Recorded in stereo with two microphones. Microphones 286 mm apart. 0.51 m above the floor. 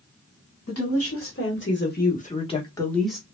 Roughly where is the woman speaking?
Left.